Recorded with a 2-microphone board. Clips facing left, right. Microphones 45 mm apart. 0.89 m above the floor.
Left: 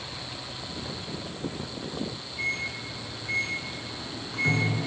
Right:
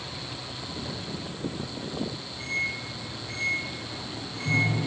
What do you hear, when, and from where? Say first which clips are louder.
2.4 s a microwave: even; 75° left (ahead or behind), 9 m